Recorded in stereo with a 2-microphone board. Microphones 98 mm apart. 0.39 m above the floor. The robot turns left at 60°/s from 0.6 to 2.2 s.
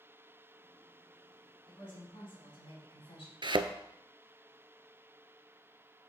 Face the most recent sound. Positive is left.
turn(degrees=-55)  # may be behind; listen again after turning